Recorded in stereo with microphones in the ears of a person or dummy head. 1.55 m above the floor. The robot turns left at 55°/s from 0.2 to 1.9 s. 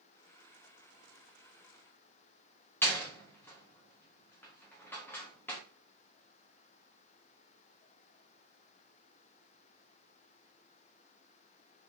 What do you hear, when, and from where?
2.8 s a door slam: 10° left (ahead or behind), 1.1 m